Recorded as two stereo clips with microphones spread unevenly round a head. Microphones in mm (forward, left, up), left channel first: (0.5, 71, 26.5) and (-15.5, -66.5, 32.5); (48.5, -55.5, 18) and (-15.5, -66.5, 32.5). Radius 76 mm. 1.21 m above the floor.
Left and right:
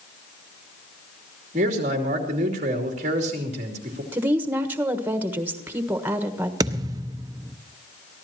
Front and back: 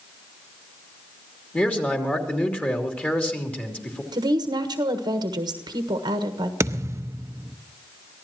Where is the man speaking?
55° right, 3 m.